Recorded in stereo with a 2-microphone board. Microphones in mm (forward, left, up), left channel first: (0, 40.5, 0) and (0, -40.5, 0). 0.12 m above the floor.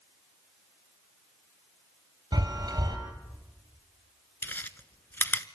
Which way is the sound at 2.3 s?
55° right (ahead or behind).